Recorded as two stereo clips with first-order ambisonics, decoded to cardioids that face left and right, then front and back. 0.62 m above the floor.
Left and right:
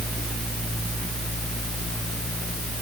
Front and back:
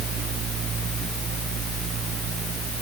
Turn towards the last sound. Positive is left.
No sound to turn to.